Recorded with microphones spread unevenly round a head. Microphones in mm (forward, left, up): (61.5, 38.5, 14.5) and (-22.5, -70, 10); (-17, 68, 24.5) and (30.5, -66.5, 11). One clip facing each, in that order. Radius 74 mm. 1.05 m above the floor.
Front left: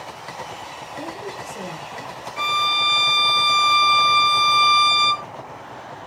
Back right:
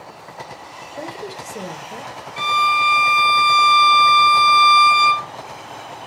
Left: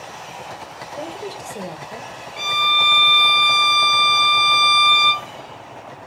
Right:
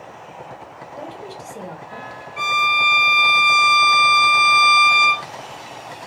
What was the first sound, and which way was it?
A woman speaking, 175° right.